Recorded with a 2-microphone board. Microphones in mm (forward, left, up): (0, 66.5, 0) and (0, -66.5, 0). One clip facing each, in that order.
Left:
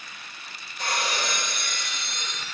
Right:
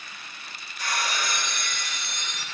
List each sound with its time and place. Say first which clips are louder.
0.8 s breaking glass: left 1 dB; 55° left (ahead or behind), 5 m